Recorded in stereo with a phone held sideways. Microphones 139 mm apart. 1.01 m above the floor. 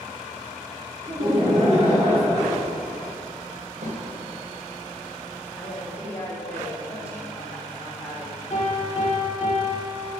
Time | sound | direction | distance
1.1 | laughter | 45° right (ahead or behind) | 3 m
3.8 | a snare drum | 80° right | 2.5 m
5.6 | a woman speaking | 20° left (ahead or behind) | 2.5 m
8.5 | a piano | 50° left (ahead or behind) | 3.5 m